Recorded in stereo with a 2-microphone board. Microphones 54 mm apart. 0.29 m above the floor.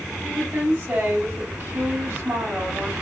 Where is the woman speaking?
45° right (ahead or behind), 2 m.